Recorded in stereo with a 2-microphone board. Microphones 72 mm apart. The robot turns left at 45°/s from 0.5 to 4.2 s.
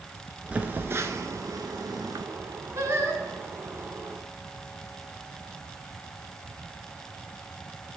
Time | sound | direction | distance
0.5 | a phone buzzing | 20° right (ahead or behind) | 0.6 m
2.8 | singing | 45° right (ahead or behind) | 0.9 m